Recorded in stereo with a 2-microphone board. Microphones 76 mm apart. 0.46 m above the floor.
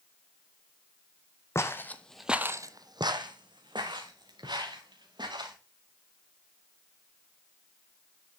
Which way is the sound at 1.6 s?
35° left (ahead or behind).